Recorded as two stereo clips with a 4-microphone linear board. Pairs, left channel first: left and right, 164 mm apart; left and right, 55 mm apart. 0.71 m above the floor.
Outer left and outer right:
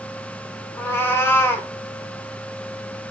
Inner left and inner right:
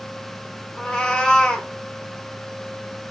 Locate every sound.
0.8 s a cat meowing: 15° left (ahead or behind), 0.5 m